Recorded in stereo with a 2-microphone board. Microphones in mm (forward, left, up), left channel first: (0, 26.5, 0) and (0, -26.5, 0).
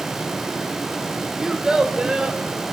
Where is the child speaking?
10° right (ahead or behind), 1.2 m; by 2.4 s 20° right (ahead or behind), 2.5 m.